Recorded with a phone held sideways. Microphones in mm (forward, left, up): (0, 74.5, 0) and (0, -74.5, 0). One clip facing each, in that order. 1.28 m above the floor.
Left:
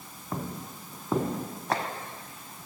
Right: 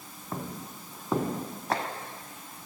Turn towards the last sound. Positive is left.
No sound to turn to.